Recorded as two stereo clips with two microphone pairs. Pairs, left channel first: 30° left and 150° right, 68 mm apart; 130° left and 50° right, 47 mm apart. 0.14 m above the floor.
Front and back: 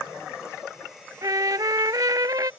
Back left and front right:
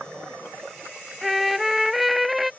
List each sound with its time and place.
1.2 s a trumpet: 140° right